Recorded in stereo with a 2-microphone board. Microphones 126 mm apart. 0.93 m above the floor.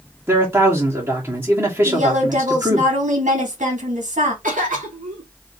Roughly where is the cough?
Right.